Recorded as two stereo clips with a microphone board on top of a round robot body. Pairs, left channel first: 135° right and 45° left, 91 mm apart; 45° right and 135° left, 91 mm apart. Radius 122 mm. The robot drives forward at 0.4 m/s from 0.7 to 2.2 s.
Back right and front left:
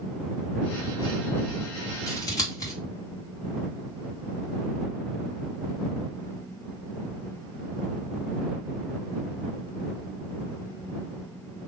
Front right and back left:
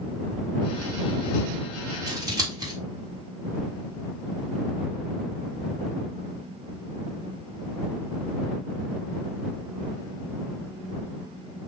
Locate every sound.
2.1 s scissors: straight behind, 1.9 m